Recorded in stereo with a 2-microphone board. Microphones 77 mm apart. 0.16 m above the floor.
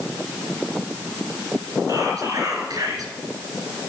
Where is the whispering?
55° right (ahead or behind), 2.5 m.